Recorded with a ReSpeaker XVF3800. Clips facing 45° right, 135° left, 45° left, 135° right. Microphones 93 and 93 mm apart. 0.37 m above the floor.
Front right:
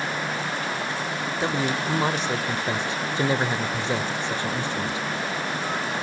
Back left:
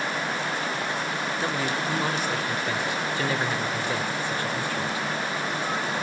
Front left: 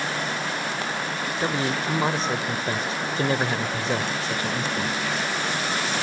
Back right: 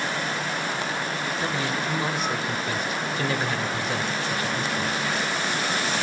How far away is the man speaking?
About 1.0 m.